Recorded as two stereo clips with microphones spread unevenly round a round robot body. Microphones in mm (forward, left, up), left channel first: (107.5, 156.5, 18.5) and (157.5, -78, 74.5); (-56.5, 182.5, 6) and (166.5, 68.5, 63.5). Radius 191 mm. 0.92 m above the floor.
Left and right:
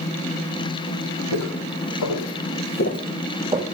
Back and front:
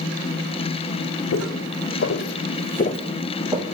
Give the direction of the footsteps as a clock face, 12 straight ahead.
8 o'clock.